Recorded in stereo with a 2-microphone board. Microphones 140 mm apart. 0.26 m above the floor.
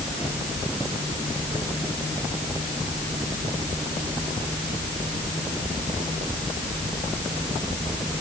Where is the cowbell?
I don't hear a cowbell.